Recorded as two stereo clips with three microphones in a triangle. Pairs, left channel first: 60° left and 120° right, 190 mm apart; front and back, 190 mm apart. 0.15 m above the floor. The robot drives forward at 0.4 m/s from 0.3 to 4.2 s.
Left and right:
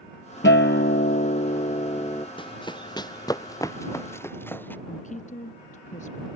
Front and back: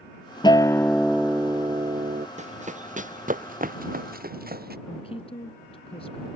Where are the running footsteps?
125° left; by 4.8 s 140° left.